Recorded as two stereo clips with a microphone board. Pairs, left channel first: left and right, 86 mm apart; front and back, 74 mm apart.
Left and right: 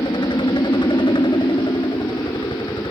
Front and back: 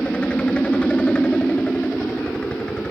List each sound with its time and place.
0.0 s a helicopter: 75° left